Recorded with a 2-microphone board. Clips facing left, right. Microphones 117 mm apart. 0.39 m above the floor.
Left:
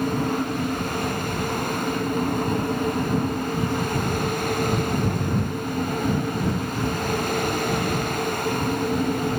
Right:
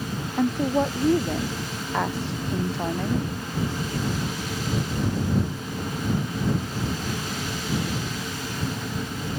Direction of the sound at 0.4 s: 80° right.